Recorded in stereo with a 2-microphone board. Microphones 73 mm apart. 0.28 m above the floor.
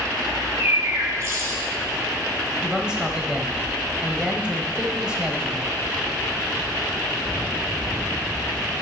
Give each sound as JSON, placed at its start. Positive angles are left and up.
{"t": 0.3, "sound": "a bird", "side_deg": -40, "distance_m": 1.5}
{"t": 2.6, "sound": "a man speaking", "side_deg": -10, "distance_m": 1.4}